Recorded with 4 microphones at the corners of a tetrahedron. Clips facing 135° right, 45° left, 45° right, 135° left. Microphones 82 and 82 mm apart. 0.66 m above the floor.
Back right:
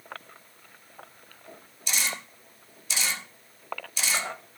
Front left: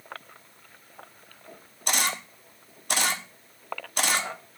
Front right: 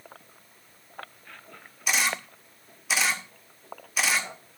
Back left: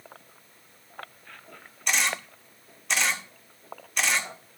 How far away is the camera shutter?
About 1.5 m.